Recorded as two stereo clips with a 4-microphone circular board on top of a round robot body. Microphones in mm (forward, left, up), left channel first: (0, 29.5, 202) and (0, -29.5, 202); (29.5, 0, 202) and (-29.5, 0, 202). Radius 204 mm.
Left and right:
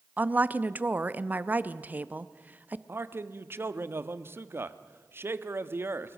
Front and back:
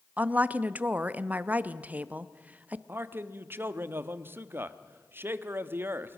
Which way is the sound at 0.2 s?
135° right.